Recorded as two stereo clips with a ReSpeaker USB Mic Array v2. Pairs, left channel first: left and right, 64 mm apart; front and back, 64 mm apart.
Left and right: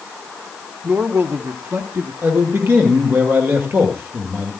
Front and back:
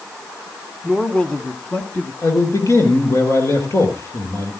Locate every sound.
0.8 s a man speaking: 80° right, 1.2 m; by 2.1 s 60° right, 2.5 m
2.2 s a man speaking: 40° right, 4.5 m